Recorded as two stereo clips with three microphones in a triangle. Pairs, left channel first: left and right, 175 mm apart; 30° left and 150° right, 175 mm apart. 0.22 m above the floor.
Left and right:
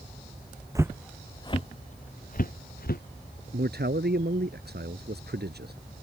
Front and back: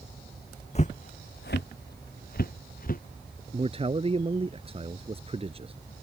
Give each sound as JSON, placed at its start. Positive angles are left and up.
{"t": 0.8, "sound": "footsteps", "azimuth_deg": -20}
{"t": 3.5, "sound": "a man speaking", "azimuth_deg": -95}